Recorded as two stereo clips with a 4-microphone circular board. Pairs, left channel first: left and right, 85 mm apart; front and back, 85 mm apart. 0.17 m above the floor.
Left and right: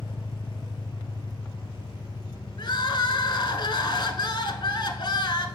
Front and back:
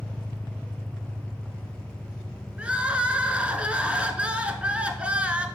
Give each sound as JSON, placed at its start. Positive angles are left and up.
{"t": 0.0, "sound": "an engine running", "azimuth_deg": 75, "distance_m": 0.9}
{"t": 2.6, "sound": "crying", "azimuth_deg": 105, "distance_m": 0.8}